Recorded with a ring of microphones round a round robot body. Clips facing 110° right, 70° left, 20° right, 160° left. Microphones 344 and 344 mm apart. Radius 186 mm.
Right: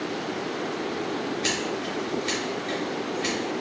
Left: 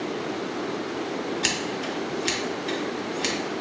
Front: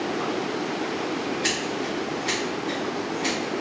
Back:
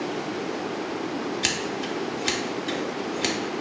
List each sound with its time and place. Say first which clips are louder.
1.4 s scissors: right 1 dB, front 2 dB; 125° left, 0.7 m